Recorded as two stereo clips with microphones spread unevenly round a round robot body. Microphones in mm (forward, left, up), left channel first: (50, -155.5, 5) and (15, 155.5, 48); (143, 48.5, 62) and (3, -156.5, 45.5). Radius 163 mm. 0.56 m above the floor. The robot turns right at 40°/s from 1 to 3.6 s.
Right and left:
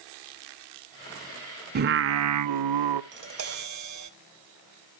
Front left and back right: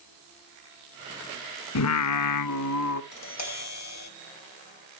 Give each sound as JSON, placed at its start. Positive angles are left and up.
{"t": 1.8, "sound": "singing", "azimuth_deg": 35, "distance_m": 0.9}
{"t": 3.1, "sound": "tapping", "azimuth_deg": 40, "distance_m": 3.0}